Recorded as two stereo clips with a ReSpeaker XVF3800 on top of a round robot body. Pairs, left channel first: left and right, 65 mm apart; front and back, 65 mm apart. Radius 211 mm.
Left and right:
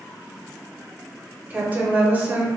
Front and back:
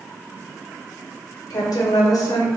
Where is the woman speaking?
25° right, 0.9 m.